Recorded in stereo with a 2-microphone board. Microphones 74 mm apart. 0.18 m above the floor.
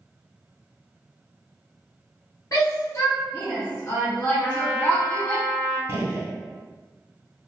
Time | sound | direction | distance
2.5 | a shout | 45° left (ahead or behind) | 1.3 m
4.4 | a trumpet | 5° left (ahead or behind) | 1.9 m
5.9 | a gunshot | 35° right (ahead or behind) | 1.3 m